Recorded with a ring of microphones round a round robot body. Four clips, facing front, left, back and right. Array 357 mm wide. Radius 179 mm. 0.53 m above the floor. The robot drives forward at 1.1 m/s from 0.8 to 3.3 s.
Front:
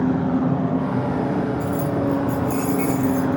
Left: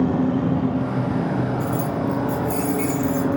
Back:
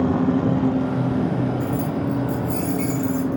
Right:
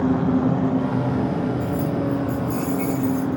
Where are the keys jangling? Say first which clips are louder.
Even, front 2 dB; 90° left, 4 m; by 3.4 s 115° left, 4.5 m.